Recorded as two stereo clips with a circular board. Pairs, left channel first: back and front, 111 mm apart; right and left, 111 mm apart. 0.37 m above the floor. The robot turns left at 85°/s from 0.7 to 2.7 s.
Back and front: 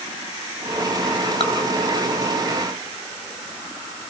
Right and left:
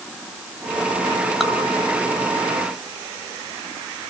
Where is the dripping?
Straight behind, 2.5 m; by 1.5 s 170° left, 2.5 m.